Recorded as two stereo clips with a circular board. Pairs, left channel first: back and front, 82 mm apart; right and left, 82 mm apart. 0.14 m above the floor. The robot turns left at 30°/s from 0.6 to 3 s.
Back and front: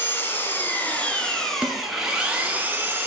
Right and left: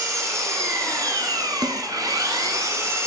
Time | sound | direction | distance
0.0 | an engine running | 125° left | 1.2 m
1.6 | a snare drum | 75° left | 0.6 m